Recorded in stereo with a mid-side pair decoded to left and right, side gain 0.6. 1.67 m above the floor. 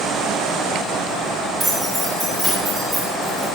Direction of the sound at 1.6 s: 30° right.